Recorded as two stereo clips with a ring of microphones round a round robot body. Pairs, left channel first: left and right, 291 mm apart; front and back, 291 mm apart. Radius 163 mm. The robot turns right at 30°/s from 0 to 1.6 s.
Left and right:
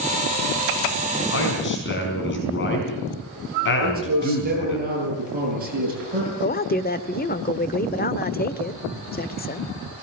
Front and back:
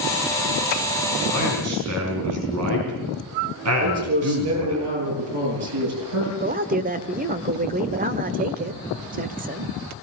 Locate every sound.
1.3 s a man speaking: 130° left, 5 m; by 4.8 s 140° left, 5 m
3.8 s a man speaking: 150° right, 10 m
6.4 s a man speaking: 130° left, 1.1 m